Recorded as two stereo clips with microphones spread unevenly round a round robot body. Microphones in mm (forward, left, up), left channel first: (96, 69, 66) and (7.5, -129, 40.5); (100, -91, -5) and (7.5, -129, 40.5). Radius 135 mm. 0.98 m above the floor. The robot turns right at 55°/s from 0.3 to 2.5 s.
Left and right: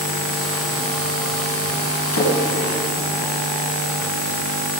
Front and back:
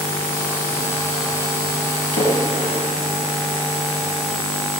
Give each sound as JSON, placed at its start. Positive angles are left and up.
{"t": 2.1, "sound": "a splash", "azimuth_deg": 50, "distance_m": 5.5}